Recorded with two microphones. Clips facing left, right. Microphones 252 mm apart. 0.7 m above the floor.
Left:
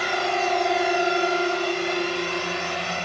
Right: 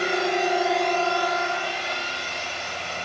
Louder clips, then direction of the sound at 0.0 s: Right 2 dB; 25° right (ahead or behind).